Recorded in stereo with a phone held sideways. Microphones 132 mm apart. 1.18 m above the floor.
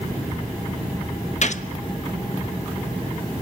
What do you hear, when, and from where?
1.4 s a gunshot: 60° left (ahead or behind), 0.9 m